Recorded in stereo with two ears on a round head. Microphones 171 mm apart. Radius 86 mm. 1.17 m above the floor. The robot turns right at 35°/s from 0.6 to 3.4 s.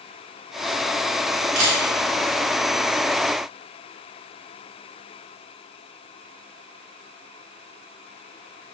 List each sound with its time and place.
1.6 s a camera shutter: 60° right (ahead or behind), 1.0 m; by 1.8 s 65° right (ahead or behind), 1.0 m